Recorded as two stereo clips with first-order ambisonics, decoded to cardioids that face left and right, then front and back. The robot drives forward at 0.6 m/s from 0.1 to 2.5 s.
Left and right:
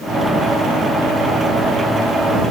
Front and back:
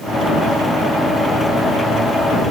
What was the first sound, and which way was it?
Only background noise.